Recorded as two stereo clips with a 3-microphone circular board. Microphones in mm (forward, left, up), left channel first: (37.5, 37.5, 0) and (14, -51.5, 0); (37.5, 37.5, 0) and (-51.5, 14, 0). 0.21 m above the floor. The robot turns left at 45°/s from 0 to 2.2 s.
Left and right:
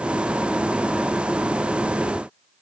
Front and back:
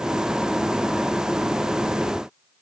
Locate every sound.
Only background noise.